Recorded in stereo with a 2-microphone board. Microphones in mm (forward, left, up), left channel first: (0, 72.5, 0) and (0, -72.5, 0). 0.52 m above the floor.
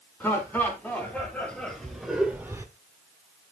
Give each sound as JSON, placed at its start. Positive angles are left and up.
{"t": 0.2, "sound": "laughter", "side_deg": 15, "distance_m": 4.5}